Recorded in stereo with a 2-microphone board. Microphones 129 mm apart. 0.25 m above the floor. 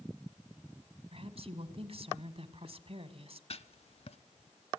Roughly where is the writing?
Left.